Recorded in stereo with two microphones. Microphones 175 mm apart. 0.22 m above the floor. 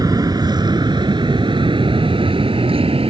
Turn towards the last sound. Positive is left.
turn(degrees=-35)  # may be behind; listen again after turning